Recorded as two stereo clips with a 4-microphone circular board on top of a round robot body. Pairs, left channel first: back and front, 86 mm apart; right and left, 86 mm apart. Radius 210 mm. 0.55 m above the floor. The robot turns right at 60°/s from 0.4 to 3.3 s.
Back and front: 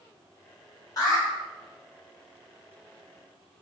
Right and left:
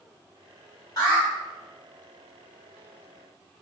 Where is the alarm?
130° right, 1.5 m; by 1.2 s 115° right, 1.5 m.